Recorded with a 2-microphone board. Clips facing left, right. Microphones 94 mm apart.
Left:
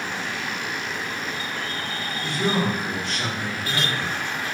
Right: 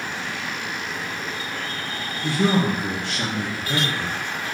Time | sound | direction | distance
2.2 | a man speaking | 65° right (ahead or behind) | 0.7 m